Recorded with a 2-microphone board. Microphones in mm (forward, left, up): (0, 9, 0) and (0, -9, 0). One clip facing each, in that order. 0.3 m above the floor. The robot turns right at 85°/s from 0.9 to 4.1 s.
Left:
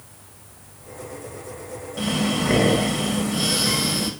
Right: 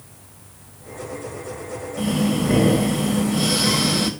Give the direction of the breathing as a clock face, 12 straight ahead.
10 o'clock.